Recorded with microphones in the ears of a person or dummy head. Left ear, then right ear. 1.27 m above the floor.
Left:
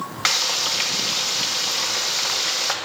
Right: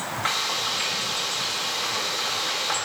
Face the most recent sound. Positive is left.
turn(degrees=85)